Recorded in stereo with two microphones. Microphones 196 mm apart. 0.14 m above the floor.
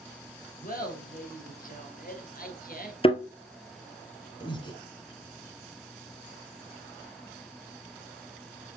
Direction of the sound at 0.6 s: 45° left (ahead or behind).